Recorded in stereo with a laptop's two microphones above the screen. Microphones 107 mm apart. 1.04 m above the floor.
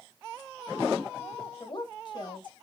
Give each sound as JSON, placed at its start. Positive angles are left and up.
{"t": 1.6, "sound": "a woman speaking", "side_deg": 45, "distance_m": 1.2}